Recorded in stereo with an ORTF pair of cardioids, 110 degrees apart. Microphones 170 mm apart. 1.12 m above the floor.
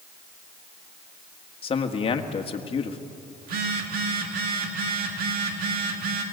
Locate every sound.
1.6 s a man speaking: 35° left, 1.8 m
3.4 s a phone buzzing: 65° right, 2.5 m